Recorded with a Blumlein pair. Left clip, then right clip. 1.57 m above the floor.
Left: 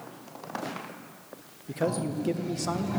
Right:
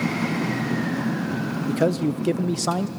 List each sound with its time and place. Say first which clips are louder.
1.7 s a man speaking: right 6 dB; 25° right, 0.5 m